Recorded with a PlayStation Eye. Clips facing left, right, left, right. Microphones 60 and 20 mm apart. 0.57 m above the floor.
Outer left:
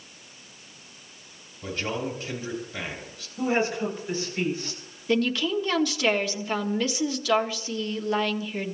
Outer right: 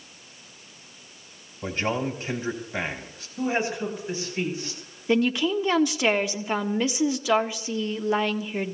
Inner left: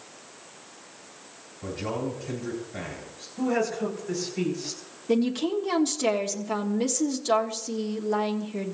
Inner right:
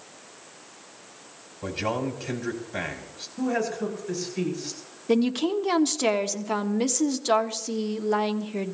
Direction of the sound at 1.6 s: 50° right (ahead or behind).